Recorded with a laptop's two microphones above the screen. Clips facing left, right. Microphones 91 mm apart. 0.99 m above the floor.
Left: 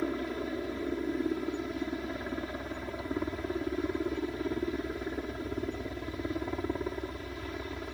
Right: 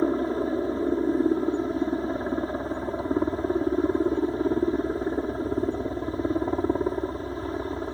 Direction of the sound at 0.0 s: 35° right (ahead or behind).